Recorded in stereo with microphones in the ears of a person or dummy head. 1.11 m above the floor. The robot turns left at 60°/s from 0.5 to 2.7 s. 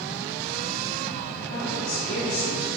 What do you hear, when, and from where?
1.5 s a woman speaking: 110° left, 2.5 m; by 2.7 s 35° left, 2.5 m